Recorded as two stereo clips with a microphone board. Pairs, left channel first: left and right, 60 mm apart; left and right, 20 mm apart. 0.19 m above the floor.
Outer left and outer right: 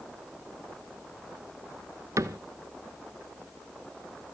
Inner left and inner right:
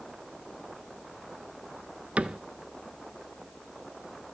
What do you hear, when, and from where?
2.2 s a cupboard door: 65° right (ahead or behind), 0.7 m